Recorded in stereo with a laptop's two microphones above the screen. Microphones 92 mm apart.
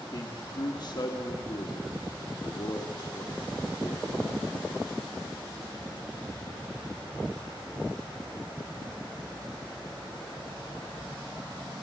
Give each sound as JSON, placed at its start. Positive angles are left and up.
{"t": 0.1, "sound": "a man speaking", "side_deg": 50, "distance_m": 1.6}